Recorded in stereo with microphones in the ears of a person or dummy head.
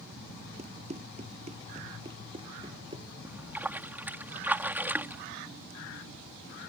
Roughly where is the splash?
Centre.